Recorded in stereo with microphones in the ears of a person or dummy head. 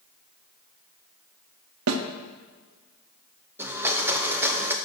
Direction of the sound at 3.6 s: 10° right (ahead or behind).